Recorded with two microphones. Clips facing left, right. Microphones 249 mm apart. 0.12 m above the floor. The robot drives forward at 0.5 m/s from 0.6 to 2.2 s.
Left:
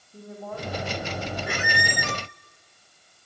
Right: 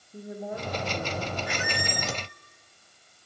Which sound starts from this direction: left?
A squeak, at 1.5 s.